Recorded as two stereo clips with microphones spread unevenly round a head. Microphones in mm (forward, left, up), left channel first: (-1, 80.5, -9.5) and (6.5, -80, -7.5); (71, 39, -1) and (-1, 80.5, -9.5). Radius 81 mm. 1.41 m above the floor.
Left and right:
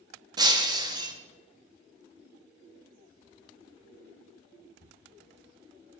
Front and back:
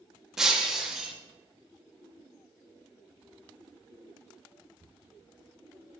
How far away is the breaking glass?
About 0.8 m.